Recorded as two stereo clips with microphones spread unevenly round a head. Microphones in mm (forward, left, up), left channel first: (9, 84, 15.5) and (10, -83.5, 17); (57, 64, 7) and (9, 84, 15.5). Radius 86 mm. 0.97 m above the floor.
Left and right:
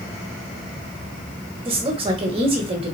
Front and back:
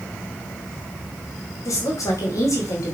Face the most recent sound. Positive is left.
turn(degrees=-30)